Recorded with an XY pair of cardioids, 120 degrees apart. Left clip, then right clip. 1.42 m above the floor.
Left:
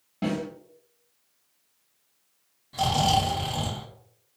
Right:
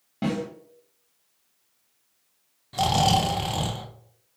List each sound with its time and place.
0.2 s a snare drum: 20° right, 1.6 m
2.7 s snoring: 30° right, 0.8 m